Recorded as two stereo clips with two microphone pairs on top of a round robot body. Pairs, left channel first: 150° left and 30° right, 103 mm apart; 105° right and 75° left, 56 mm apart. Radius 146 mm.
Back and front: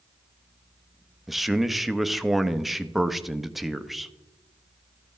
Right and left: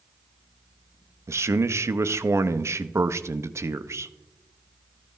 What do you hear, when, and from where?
1.3 s a man speaking: 65° left, 0.8 m